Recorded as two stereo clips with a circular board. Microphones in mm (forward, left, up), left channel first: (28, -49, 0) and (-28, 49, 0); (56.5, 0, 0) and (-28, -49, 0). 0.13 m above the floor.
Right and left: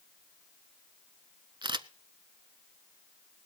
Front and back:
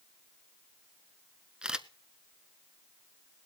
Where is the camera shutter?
135° left, 0.7 m.